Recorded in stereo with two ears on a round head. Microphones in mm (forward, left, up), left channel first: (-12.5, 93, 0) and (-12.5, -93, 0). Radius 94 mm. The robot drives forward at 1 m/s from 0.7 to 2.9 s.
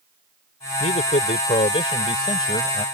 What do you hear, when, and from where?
0.8 s a man speaking: 35° left (ahead or behind); by 2.8 s 20° left (ahead or behind)